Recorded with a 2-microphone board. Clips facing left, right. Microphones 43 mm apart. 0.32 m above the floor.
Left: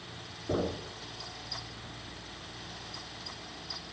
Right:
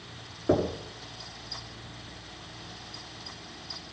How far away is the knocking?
About 4 m.